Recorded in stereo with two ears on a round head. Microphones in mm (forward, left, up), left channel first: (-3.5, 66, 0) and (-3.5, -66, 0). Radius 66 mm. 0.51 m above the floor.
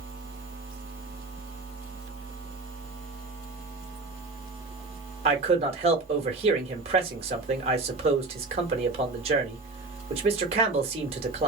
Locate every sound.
5.2 s a man speaking: 45° right (ahead or behind), 1.1 m